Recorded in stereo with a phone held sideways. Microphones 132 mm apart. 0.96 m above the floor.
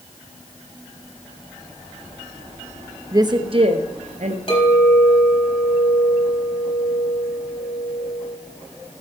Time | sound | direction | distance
3.1 | a woman speaking | 25° right (ahead or behind) | 0.7 m
4.5 | a clink | 45° left (ahead or behind) | 4 m